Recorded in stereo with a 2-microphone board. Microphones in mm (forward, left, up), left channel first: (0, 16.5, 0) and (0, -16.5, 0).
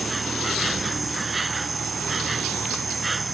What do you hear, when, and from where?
0.0 s an insect: 5° right (ahead or behind)